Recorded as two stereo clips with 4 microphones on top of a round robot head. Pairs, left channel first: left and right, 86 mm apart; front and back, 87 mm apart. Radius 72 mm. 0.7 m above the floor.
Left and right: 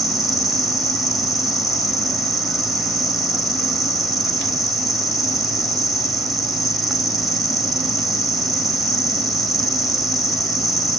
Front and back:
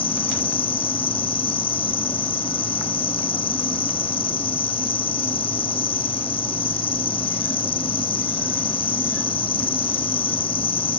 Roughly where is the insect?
Ahead.